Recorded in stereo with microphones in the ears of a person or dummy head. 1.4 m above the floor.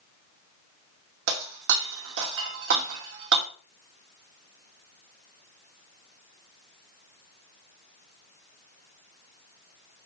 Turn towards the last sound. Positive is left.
turn(degrees=-70)  # may be behind; listen again after turning